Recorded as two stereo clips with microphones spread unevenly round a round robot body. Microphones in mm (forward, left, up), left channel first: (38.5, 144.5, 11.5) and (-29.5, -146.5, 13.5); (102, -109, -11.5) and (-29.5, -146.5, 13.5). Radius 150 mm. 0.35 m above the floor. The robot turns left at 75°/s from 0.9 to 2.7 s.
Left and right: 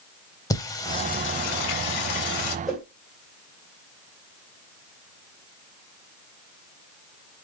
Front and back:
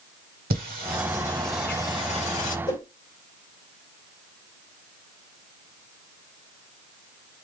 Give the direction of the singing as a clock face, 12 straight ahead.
7 o'clock.